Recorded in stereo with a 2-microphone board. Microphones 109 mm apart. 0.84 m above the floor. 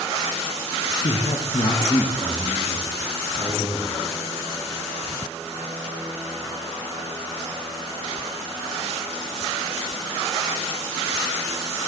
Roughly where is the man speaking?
Left.